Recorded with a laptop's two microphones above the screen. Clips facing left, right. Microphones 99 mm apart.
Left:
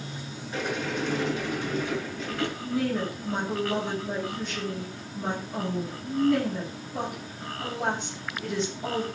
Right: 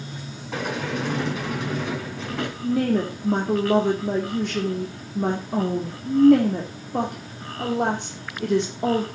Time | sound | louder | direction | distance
0.5 | a sliding door | right 3 dB | 80° right | 7 m
2.6 | a woman speaking | right 8 dB | 60° right (ahead or behind) | 2 m